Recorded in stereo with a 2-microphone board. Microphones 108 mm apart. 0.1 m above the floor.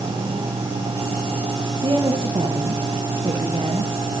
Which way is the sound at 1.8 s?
50° right (ahead or behind).